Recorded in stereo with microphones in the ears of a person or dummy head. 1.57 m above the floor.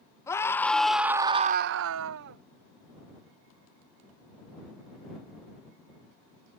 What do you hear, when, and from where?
0.3 s a scream: 15° left (ahead or behind); by 2.4 s 60° right (ahead or behind)